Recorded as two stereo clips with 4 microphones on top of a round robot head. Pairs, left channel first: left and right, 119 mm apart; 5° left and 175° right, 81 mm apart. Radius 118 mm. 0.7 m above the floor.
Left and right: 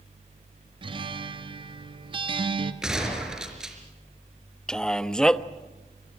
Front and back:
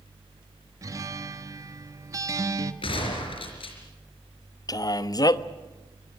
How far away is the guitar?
About 1.3 m.